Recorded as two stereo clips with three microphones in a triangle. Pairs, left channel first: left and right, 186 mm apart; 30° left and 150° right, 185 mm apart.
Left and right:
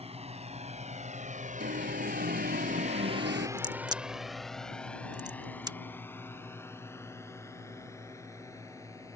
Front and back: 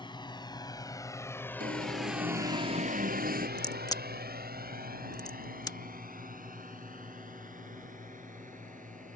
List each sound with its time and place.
0.0 s a drone: 35° right; by 9.2 s 165° left
1.6 s an alarm: 110° right
3.6 s a crack: 30° right